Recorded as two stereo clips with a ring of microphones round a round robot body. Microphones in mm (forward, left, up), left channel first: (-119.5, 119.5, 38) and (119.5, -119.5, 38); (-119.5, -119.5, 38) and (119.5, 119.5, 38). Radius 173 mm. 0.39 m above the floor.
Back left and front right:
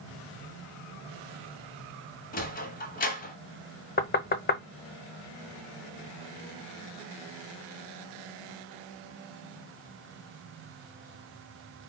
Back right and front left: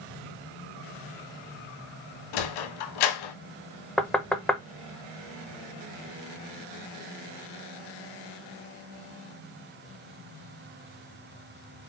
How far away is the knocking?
About 0.5 m.